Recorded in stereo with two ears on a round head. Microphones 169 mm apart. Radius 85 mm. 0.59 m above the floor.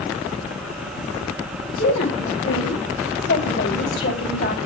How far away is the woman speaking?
About 3 m.